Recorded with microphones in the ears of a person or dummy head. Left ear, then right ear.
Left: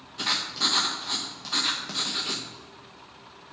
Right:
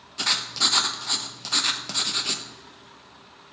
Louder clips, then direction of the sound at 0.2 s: Right 3 dB; 20° right (ahead or behind).